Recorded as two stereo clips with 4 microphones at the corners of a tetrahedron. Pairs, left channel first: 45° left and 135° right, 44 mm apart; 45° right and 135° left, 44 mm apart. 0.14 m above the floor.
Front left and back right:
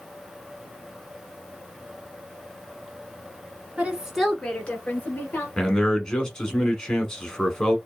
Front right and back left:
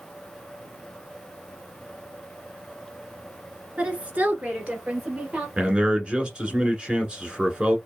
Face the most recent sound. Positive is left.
turn(degrees=105)